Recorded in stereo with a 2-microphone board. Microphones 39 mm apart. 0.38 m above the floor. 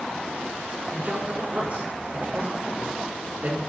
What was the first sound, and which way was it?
A man speaking, 40° right (ahead or behind).